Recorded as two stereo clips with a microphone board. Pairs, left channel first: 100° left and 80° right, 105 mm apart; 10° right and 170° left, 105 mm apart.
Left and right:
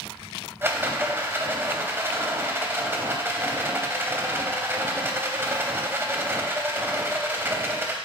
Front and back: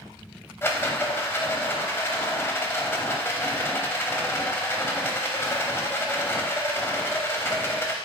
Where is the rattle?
35° right, 0.6 m.